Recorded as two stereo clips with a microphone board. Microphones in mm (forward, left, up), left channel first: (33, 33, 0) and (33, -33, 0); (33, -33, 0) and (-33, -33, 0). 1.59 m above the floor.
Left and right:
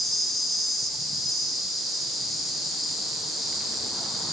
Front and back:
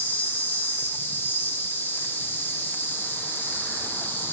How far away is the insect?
About 0.8 m.